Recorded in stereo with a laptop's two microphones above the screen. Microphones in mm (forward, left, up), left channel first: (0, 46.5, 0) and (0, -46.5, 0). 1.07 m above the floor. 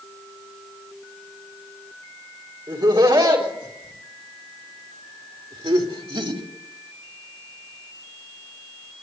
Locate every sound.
2.7 s laughter: 55° right (ahead or behind), 3 m; by 6.4 s 70° right (ahead or behind), 2.5 m